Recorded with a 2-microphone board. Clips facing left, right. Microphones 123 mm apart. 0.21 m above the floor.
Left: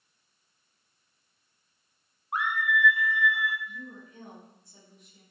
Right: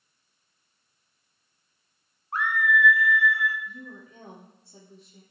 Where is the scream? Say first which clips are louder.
Right 4 dB; 20° left (ahead or behind), 1.3 m.